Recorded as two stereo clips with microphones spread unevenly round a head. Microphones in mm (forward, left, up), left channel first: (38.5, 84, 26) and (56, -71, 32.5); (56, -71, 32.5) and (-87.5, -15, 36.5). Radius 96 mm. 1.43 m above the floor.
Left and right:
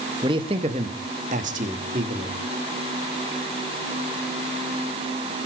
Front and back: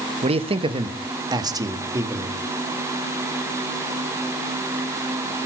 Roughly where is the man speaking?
Behind right.